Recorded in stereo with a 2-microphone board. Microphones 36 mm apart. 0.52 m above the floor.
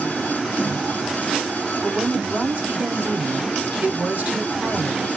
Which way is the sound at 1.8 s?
55° right (ahead or behind).